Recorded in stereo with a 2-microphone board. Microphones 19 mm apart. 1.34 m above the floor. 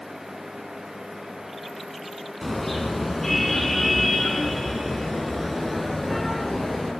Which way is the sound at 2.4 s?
15° left (ahead or behind).